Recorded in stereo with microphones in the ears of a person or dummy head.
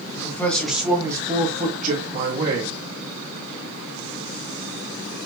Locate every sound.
0.1 s a man speaking: 20° left (ahead or behind), 1.4 m; by 2.8 s 65° right (ahead or behind), 1.8 m